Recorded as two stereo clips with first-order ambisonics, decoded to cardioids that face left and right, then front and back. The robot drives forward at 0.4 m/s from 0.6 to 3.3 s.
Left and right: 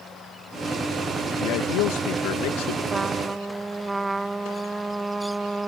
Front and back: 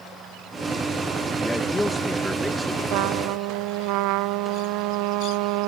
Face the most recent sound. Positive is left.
turn(degrees=-170)